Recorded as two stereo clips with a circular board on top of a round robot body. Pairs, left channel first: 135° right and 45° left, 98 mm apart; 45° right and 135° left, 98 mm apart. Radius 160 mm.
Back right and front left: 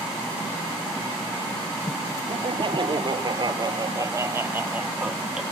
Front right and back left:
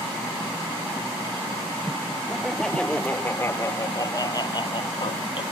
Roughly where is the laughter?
Ahead left.